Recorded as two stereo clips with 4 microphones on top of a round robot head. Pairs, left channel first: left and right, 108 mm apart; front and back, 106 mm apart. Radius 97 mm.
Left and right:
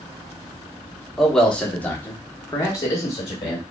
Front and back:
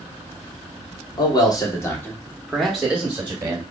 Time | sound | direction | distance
1.2 | a man speaking | 5° left | 1.0 m